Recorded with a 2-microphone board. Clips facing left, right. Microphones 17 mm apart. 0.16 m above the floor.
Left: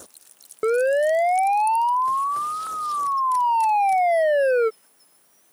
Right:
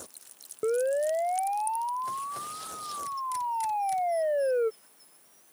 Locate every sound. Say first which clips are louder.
0.6 s a siren: left 7 dB; 60° left (ahead or behind)